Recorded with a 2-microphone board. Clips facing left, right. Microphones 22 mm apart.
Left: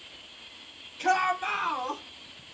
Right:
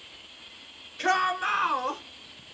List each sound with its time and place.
1.0 s a shout: 50° right (ahead or behind), 4.5 m